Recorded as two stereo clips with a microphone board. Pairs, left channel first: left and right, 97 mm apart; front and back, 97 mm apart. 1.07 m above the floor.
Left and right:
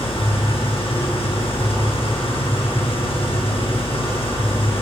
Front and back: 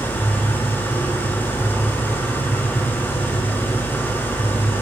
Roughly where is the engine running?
Left.